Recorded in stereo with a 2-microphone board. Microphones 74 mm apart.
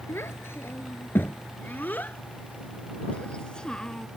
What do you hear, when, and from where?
0.1 s a child speaking: 35° left (ahead or behind); by 4.1 s 10° left (ahead or behind)